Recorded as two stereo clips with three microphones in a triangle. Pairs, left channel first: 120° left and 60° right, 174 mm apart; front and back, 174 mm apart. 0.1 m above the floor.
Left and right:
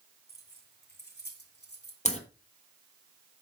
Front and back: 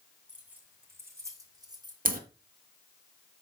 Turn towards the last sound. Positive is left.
turn(degrees=160)